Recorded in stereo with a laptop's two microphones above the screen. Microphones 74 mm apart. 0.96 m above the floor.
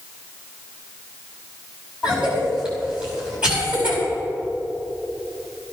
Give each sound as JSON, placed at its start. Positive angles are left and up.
{"t": 2.0, "sound": "a cough", "side_deg": -10, "distance_m": 5.0}